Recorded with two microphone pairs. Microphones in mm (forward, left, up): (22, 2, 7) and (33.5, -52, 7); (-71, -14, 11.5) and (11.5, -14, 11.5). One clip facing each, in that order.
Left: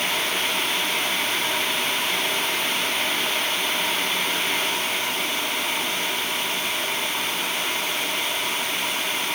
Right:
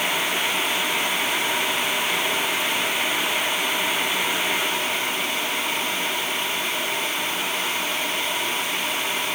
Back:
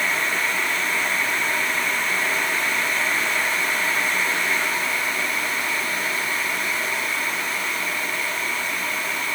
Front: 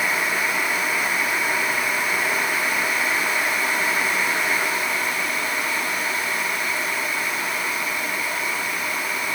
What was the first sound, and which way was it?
Only background noise.